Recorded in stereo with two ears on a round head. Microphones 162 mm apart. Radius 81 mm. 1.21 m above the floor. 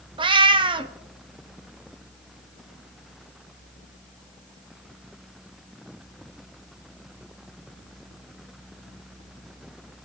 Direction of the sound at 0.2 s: 30° right (ahead or behind).